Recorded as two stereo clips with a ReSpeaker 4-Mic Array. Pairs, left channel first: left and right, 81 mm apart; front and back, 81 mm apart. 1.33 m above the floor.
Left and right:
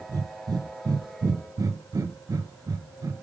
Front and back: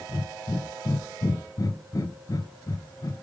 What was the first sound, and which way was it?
Breathing, 45° right.